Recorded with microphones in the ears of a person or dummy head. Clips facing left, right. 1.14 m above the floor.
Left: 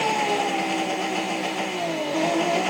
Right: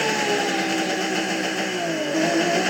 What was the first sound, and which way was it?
An engine running, 15° right (ahead or behind).